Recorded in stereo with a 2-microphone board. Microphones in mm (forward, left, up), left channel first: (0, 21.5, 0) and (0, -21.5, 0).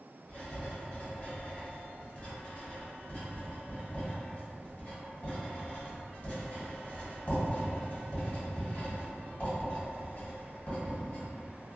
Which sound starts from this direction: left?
Writing, at 0.3 s.